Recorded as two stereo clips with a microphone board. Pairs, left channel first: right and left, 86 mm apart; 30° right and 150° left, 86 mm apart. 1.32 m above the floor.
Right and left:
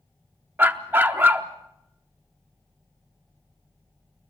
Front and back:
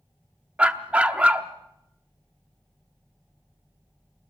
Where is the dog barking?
95° left, 0.9 m.